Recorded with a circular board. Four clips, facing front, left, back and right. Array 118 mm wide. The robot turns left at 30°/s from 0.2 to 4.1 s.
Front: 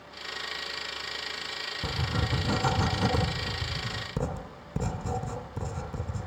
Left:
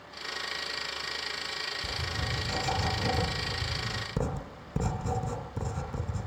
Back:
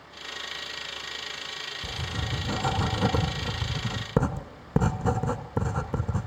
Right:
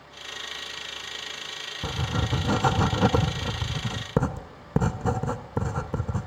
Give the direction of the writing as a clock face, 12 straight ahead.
2 o'clock.